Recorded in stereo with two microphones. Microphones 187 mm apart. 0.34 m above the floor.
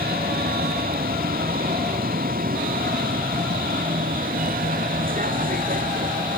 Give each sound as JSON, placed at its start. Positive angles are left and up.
{"t": 0.0, "sound": "a vehicle", "side_deg": -55}